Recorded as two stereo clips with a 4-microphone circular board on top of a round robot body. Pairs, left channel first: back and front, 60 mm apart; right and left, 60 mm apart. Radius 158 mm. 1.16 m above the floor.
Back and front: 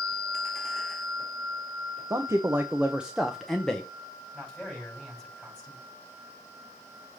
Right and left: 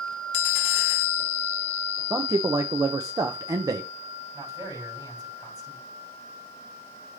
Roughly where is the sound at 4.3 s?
Left.